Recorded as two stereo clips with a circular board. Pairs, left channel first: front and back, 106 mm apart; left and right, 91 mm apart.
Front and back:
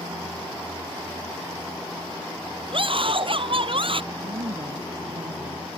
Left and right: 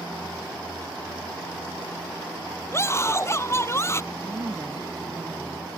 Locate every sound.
2.7 s a scream: 150° left
4.1 s a woman speaking: 145° right